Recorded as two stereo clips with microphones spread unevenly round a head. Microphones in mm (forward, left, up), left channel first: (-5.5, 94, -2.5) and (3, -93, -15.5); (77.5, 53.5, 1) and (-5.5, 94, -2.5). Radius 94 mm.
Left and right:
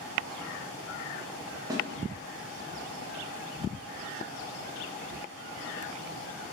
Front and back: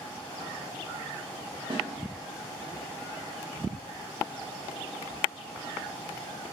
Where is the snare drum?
160° right, 1.4 m.